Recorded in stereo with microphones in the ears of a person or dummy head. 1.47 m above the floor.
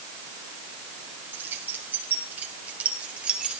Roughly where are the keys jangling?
Centre.